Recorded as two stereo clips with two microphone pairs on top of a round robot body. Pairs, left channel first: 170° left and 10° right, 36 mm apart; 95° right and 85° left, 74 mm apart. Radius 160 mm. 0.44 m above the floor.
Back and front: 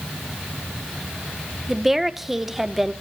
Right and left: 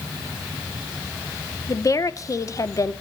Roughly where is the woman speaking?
Right.